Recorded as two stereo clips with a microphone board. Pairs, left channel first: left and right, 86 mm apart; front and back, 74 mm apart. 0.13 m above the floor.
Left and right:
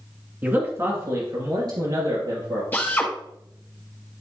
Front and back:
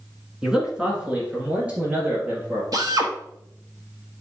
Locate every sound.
0.4 s a man speaking: 110° right, 1.7 m
2.7 s a drill: 155° left, 2.0 m